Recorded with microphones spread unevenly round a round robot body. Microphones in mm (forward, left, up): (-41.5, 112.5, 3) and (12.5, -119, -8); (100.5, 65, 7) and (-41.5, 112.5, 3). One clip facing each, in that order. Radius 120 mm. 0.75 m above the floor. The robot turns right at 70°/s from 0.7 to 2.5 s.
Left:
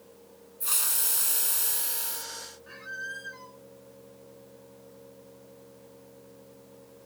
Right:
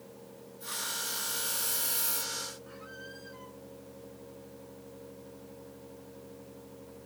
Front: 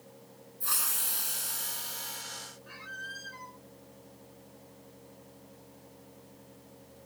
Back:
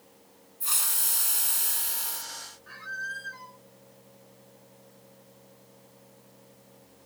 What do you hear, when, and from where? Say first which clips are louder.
0.6 s a hiss: right 2 dB, back 1 dB; 100° left; by 2.3 s 150° right
2.7 s a squeak: right 2 dB, back 4 dB; 55° left